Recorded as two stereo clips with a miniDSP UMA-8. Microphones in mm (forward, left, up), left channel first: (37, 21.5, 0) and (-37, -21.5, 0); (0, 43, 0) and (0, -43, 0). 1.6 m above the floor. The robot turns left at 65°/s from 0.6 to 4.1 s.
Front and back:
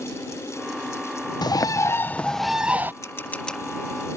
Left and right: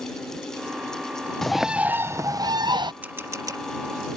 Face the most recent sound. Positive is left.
turn(degrees=-90)